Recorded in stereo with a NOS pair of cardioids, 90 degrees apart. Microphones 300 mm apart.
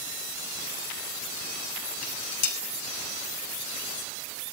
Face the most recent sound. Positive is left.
turn(degrees=55)